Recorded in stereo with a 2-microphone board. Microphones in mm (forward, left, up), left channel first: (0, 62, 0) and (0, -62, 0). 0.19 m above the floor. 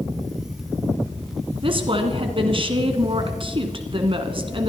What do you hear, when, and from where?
1.6 s a woman speaking: 45° right (ahead or behind), 1.7 m